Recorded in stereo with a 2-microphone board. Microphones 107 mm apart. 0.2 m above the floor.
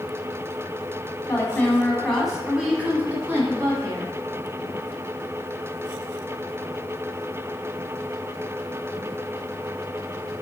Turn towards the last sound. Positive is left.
turn(degrees=-30)  # may be behind; listen again after turning